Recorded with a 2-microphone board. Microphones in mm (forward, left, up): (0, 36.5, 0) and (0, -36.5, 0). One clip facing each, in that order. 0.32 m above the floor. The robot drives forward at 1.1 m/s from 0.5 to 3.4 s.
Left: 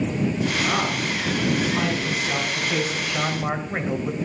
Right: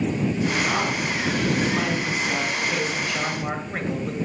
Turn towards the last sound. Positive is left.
turn(degrees=15)  # may be behind; listen again after turning